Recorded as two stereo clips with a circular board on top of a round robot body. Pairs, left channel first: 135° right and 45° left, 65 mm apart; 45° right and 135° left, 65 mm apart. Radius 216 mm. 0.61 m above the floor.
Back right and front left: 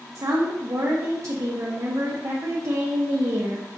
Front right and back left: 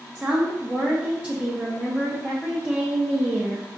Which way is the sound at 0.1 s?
65° left.